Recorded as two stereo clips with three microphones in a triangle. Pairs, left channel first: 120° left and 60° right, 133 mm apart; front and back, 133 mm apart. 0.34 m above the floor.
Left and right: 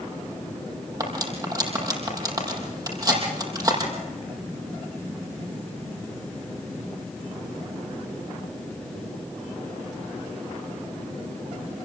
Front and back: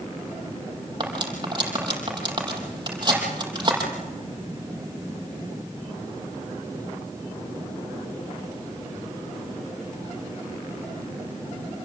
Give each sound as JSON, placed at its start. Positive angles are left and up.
{"t": 1.0, "sound": "cutlery clinking", "azimuth_deg": -125, "distance_m": 6.5}